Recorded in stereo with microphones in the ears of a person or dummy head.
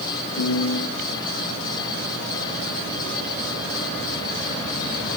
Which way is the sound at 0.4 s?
40° left (ahead or behind).